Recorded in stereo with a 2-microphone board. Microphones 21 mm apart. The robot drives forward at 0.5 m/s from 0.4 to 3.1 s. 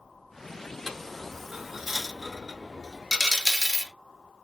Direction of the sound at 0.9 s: 15° right (ahead or behind).